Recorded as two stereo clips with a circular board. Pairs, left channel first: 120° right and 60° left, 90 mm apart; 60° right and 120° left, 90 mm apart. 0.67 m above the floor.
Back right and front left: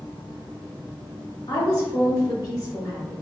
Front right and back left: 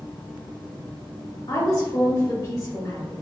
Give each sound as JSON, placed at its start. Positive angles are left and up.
{"t": 1.5, "sound": "a woman speaking", "azimuth_deg": -90, "distance_m": 1.8}